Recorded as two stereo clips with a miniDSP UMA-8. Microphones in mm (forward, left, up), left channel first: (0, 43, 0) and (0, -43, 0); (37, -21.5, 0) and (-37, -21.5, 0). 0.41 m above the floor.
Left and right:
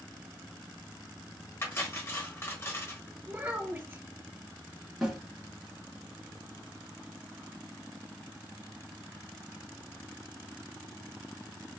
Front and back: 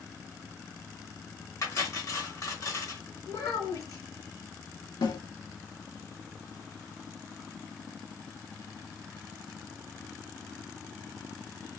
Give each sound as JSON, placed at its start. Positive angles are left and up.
{"t": 1.6, "sound": "cutlery clinking", "azimuth_deg": 35, "distance_m": 1.0}
{"t": 3.3, "sound": "a child speaking", "azimuth_deg": -25, "distance_m": 1.9}
{"t": 5.0, "sound": "a snare drum", "azimuth_deg": 0, "distance_m": 1.5}